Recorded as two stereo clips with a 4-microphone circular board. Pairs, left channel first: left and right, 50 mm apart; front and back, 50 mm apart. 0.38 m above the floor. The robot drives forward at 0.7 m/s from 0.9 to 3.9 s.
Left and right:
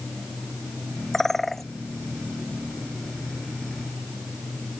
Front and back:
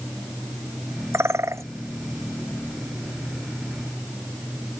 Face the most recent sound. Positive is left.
turn(degrees=180)